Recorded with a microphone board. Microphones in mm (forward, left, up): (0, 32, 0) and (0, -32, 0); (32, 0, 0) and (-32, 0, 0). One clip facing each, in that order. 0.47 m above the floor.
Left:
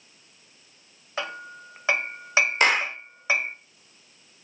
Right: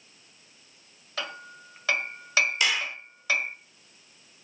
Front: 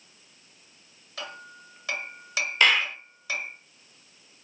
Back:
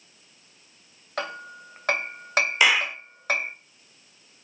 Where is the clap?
105° left, 0.7 m.